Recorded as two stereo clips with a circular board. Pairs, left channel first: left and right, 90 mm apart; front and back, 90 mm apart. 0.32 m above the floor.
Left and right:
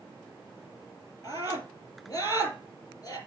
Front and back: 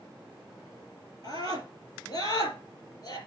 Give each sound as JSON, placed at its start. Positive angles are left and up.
{"t": 1.2, "sound": "a scream", "azimuth_deg": 40, "distance_m": 4.5}